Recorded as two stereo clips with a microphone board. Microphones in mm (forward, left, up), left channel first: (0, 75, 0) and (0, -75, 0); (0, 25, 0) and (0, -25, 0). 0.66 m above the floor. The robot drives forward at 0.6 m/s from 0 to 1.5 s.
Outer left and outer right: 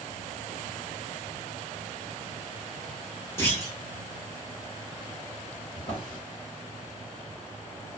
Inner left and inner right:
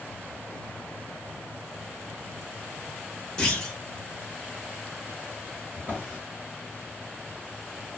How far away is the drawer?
About 1.1 m.